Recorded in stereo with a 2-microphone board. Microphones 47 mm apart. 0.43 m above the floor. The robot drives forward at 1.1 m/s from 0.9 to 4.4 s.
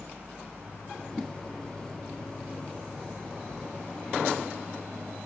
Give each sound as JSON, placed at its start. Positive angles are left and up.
{"t": 1.1, "sound": "a whoosh", "side_deg": 0}